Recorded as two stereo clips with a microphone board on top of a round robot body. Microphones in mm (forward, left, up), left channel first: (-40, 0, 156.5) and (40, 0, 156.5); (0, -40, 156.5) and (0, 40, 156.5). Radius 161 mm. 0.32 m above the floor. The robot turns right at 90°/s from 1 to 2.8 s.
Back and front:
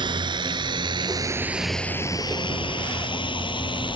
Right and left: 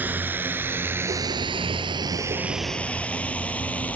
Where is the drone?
20° left; by 4.0 s 165° right.